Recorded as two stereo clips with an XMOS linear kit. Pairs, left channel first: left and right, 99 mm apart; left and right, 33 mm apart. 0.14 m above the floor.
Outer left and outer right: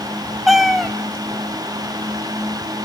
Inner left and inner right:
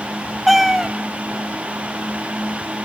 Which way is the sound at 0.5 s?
Centre (ahead or behind).